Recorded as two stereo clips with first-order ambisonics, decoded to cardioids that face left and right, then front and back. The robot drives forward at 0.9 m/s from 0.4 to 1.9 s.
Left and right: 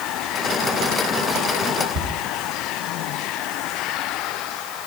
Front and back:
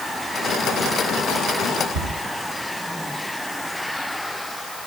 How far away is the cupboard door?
About 3 m.